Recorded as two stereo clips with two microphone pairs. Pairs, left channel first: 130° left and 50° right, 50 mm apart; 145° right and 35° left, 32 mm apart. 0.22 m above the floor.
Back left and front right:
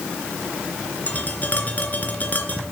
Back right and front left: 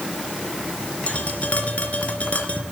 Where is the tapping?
Straight behind, 3 m.